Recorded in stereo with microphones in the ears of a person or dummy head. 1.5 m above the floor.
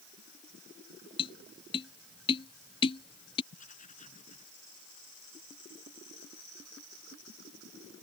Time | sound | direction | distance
1.2 | tapping | 25° left (ahead or behind) | ?
3.5 | writing | 40° left (ahead or behind) | ?